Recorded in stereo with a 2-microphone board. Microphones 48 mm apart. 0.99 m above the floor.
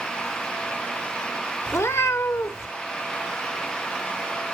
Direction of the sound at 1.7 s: 75° left (ahead or behind).